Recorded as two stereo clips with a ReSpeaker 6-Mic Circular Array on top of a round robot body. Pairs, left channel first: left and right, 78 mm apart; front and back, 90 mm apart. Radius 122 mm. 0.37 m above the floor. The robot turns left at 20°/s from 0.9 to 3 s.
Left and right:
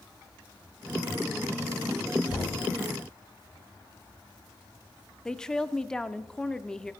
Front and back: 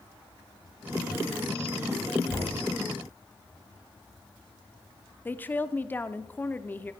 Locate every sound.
2.3 s knocking: 45° left, 5 m; by 2.6 s 40° left, 5 m
5.2 s a woman speaking: 25° left, 0.9 m